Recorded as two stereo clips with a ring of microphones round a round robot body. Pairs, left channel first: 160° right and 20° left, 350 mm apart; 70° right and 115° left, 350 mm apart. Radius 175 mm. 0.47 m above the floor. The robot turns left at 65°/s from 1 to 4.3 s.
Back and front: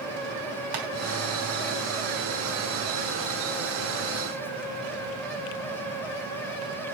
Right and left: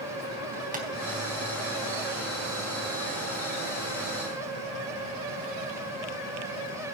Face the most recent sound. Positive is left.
turn(degrees=-170)